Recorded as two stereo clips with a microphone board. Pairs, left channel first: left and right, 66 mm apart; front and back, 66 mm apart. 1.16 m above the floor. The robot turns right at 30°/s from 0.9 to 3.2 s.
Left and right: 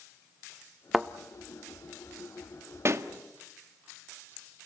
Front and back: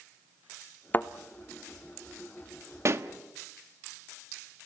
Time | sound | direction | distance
0.9 | a thud | 15° right | 0.7 m
2.9 | a pop | 135° right | 1.2 m